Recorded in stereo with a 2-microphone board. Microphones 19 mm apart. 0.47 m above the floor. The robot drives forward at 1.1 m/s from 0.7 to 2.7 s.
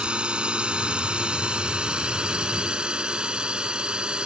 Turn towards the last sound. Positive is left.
turn(degrees=-60)  # may be behind; listen again after turning